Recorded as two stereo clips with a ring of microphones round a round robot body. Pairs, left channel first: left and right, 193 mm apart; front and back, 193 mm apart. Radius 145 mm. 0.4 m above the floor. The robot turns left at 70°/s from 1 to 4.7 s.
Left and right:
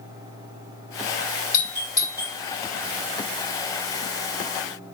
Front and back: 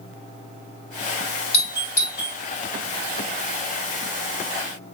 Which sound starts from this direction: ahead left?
A doorbell, at 1.5 s.